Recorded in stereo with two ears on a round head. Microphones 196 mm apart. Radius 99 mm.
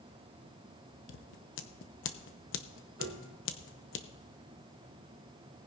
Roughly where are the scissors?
Left.